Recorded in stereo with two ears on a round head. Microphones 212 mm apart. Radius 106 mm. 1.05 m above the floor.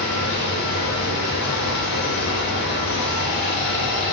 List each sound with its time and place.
0.0 s running water: 85° left, 3 m